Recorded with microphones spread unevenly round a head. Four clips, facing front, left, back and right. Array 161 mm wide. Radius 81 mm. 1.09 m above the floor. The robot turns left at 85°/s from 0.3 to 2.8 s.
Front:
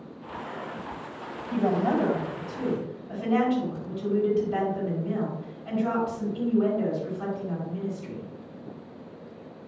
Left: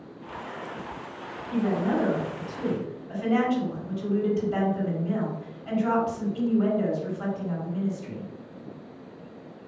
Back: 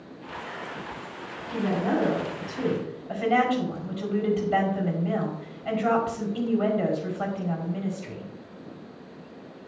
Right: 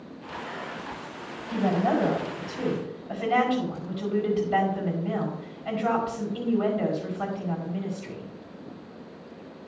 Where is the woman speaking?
30° right, 5.5 m; by 8.3 s 140° right, 5.5 m.